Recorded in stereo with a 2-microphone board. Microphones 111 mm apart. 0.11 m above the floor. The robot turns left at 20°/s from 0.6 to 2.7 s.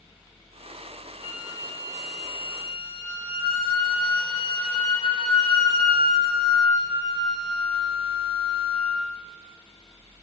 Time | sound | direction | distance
1.2 | a flute | 35° left (ahead or behind) | 1.6 m